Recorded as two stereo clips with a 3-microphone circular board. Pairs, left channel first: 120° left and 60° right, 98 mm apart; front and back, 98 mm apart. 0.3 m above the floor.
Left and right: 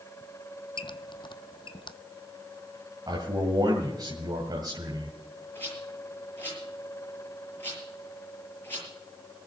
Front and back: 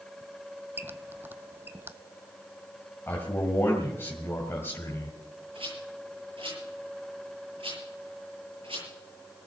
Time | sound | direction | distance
0.8 | a squeak | 115° left | 0.5 m
3.1 | a man speaking | 55° right | 2 m
5.5 | a rattle | 175° right | 8 m